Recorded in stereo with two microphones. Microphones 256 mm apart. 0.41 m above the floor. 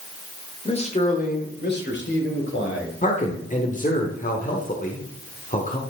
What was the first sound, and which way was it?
A man speaking, 20° left (ahead or behind).